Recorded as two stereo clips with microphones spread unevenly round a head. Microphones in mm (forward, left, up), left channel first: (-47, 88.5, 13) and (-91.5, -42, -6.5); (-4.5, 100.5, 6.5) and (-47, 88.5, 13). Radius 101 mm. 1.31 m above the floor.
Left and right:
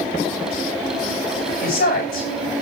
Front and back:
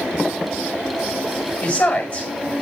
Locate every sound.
1.6 s a woman speaking: 80° left, 6.5 m